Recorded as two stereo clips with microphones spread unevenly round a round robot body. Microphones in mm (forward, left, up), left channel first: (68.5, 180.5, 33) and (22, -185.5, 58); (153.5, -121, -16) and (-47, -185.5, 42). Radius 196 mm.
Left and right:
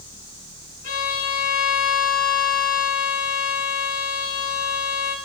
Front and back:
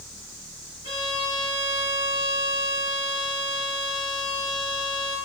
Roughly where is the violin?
Left.